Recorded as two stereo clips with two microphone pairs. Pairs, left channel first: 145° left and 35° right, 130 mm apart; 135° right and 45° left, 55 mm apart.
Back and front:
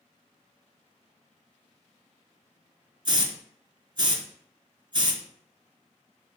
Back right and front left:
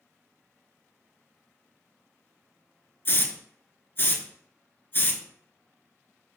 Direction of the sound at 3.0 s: 85° right.